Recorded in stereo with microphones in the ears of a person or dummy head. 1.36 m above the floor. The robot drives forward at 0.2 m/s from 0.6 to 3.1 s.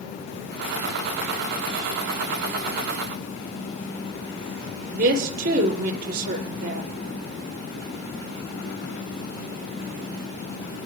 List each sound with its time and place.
4.9 s a woman speaking: 65° right (ahead or behind), 2.5 m